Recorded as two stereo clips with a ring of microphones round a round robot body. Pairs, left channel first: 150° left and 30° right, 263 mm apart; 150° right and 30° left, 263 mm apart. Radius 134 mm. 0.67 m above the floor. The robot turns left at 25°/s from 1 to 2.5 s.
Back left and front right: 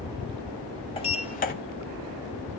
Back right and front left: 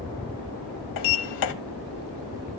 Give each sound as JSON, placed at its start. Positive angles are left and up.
{"t": 1.0, "sound": "a sliding door", "azimuth_deg": -140, "distance_m": 1.0}